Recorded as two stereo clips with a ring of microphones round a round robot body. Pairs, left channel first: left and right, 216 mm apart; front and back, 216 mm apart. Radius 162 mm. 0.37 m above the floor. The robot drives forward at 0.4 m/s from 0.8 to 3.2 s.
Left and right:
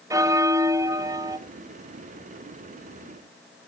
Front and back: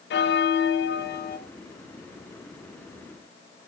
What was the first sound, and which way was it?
A bell, 15° right.